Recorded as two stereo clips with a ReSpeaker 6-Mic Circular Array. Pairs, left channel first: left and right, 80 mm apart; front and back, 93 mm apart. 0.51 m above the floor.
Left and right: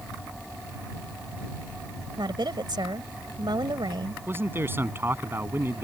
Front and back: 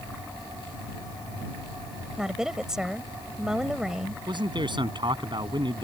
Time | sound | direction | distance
2.2 | a woman speaking | 95° right | ?
4.3 | a man speaking | 150° right | ?